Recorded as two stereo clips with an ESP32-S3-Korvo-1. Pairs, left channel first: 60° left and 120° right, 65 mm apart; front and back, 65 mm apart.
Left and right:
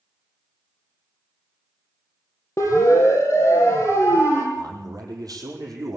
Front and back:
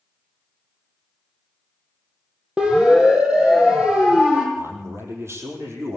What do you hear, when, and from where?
2.6 s a siren: 105° left, 4.5 m; by 4.5 s 110° left, 6 m
4.5 s a man speaking: 135° right, 5 m